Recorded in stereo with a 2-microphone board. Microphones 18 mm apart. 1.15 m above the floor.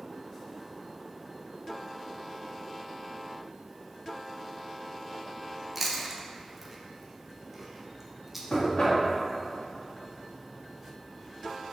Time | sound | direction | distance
5.8 | chewing | 15° right (ahead or behind) | 0.5 m
8.5 | knocking | 70° left (ahead or behind) | 1.0 m